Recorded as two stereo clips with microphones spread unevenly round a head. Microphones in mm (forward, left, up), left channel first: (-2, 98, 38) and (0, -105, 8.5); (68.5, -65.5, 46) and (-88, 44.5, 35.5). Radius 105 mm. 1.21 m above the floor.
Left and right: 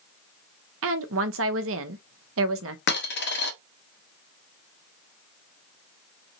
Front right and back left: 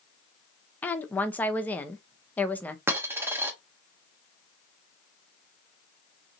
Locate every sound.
0.8 s a woman speaking: 115° right, 0.8 m
2.9 s a dropped coin: 65° left, 0.9 m